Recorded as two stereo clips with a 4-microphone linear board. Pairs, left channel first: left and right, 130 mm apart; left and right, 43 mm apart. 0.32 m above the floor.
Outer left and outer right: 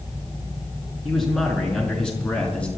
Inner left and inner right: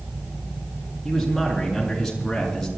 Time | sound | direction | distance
1.1 | a man speaking | centre (ahead or behind) | 5.5 m